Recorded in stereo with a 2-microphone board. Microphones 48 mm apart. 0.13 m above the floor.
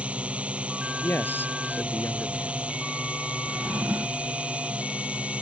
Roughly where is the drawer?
Right.